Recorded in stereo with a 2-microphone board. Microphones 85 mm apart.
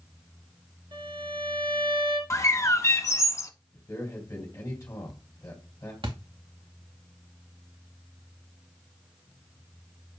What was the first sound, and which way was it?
A violin, 80° right.